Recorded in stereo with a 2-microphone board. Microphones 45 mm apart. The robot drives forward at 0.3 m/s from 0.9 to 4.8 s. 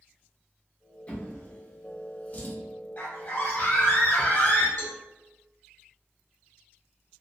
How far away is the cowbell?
About 0.8 m.